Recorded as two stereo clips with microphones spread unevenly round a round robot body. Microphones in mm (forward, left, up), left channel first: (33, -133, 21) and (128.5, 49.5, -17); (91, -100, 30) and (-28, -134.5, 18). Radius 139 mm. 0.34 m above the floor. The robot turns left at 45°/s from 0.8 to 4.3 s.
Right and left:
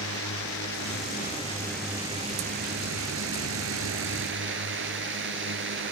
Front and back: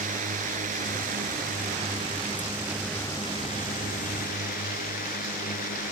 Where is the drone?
160° right; by 5.9 s 40° left.